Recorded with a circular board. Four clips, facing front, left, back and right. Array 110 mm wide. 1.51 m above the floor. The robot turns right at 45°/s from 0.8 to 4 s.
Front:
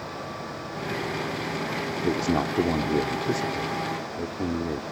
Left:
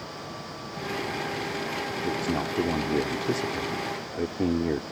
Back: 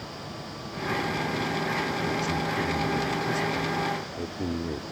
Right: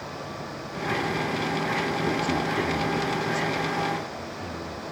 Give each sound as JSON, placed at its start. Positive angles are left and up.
{"t": 2.0, "sound": "a man speaking", "azimuth_deg": -10}